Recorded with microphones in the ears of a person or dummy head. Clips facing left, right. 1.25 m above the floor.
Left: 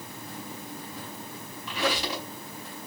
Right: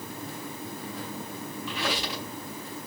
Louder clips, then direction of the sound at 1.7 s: Left 4 dB; 45° left (ahead or behind).